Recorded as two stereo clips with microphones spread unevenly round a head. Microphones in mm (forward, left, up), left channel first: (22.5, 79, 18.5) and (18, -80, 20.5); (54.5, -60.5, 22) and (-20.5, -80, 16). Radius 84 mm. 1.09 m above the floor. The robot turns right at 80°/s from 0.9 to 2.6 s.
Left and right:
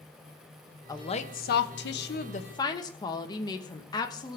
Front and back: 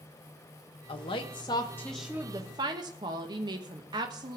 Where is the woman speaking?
20° left, 1.1 m; by 4.4 s 155° left, 1.1 m.